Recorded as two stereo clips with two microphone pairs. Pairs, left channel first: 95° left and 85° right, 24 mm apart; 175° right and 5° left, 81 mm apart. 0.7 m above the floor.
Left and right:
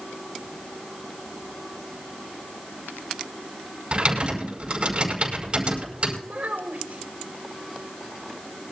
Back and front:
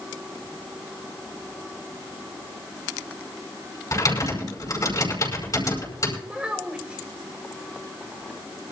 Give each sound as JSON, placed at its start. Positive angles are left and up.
{"t": 3.9, "sound": "typing on a keyboard", "azimuth_deg": -130, "distance_m": 5.0}
{"t": 6.2, "sound": "a child speaking", "azimuth_deg": -70, "distance_m": 2.5}